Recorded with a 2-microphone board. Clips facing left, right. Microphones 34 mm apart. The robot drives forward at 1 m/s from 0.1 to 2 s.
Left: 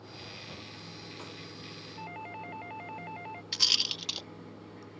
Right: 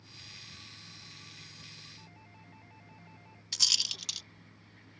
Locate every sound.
0.0 s running water: 75° left (ahead or behind); by 5.0 s 85° left
2.0 s a doorbell: 60° left (ahead or behind); by 3.4 s 65° left (ahead or behind)
3.5 s a rattle: 20° left (ahead or behind)